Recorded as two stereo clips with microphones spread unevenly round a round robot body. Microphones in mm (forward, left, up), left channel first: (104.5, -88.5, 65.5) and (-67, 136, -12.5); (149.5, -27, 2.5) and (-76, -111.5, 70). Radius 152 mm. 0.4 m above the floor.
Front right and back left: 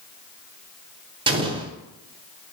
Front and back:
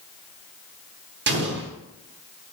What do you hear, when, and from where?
1.3 s an explosion: 165° left, 1.1 m